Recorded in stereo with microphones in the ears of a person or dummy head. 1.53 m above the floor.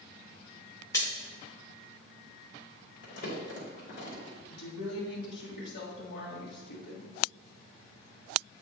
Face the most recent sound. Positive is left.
turn(degrees=75)  # may be behind; listen again after turning